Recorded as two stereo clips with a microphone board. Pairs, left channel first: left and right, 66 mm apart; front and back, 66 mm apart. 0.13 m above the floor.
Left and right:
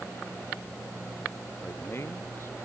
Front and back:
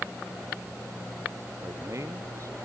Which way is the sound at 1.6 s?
140° left.